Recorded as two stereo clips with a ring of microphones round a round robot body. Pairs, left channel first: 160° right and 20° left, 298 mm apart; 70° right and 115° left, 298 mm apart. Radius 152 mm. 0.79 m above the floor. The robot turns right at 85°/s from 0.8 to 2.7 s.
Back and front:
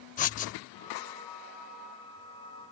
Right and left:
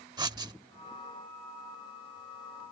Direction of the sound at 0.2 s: 175° left.